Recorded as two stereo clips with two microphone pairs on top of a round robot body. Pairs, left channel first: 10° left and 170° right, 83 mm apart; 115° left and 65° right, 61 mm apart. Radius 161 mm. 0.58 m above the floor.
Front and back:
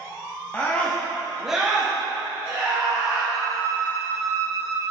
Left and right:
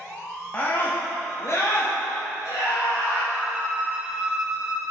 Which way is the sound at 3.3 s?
135° right.